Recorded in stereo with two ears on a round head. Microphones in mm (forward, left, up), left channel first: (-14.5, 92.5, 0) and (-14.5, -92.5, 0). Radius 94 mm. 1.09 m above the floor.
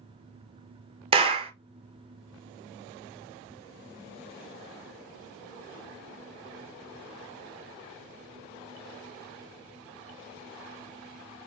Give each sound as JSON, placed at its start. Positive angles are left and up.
{"t": 1.1, "sound": "a clap", "side_deg": -25, "distance_m": 0.5}